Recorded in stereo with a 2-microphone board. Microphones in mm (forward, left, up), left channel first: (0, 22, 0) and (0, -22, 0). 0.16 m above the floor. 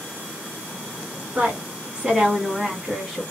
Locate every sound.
1.4 s a woman speaking: 30° right (ahead or behind), 1.8 m; by 3.2 s 5° right (ahead or behind), 1.6 m